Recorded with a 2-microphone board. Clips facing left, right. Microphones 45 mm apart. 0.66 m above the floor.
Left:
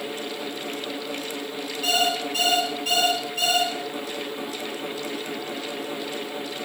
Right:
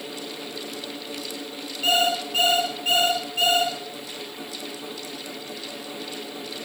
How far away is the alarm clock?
About 6.5 m.